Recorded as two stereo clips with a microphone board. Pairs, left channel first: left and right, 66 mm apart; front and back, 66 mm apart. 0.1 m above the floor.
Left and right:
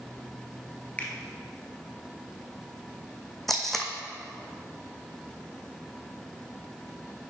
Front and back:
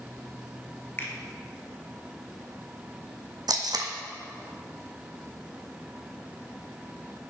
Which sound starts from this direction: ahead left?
A finger snap, at 1.0 s.